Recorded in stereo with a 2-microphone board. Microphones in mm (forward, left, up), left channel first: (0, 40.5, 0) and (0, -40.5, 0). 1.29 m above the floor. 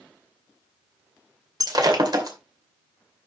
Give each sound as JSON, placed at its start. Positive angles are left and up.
{"t": 1.6, "sound": "breaking glass", "side_deg": -55, "distance_m": 2.5}